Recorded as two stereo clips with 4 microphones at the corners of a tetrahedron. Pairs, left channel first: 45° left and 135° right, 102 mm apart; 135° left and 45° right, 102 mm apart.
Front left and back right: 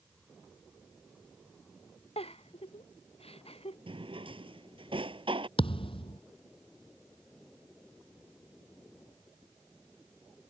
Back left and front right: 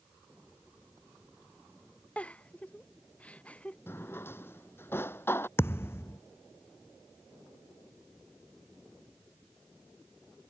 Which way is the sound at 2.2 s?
60° left.